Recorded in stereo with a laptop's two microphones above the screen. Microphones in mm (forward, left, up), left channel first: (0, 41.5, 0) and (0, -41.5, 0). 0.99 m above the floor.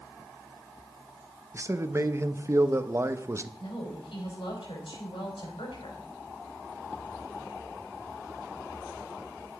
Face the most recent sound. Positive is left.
turn(degrees=85)